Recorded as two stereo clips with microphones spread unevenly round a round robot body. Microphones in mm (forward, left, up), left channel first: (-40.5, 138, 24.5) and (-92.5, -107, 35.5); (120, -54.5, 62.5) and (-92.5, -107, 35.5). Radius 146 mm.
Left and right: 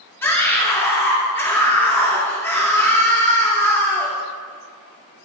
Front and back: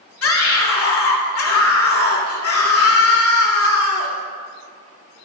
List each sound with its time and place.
0.2 s a scream: 5° right, 2.5 m